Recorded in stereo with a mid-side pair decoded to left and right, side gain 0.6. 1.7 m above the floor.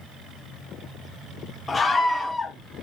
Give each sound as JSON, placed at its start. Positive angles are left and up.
{"t": 1.7, "sound": "a scream", "azimuth_deg": 25, "distance_m": 1.6}